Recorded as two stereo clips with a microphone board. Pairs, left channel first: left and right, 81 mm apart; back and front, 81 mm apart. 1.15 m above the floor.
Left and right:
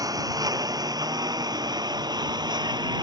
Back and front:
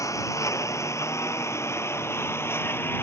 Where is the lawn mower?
130° right; by 3.0 s 120° right.